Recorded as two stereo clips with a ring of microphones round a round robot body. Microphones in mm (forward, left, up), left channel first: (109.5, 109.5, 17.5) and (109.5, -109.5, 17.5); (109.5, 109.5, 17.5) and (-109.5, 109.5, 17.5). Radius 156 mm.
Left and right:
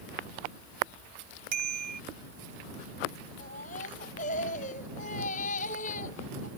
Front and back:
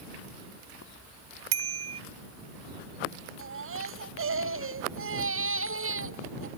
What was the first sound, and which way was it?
A bicycle bell, 155° right.